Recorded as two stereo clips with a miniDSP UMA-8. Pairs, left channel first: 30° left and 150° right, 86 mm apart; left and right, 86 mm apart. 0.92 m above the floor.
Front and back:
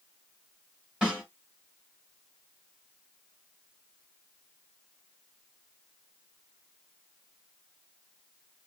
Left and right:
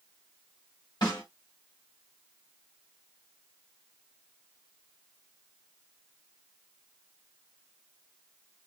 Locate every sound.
1.0 s a snare drum: 130° left, 2.5 m